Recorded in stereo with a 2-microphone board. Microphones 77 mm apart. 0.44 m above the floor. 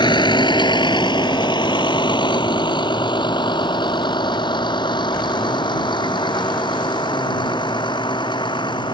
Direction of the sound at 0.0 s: 80° left.